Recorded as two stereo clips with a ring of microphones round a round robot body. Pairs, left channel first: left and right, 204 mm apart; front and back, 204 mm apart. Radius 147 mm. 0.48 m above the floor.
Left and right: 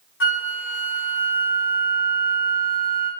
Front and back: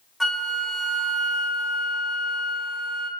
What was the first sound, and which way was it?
A flute, 90° left.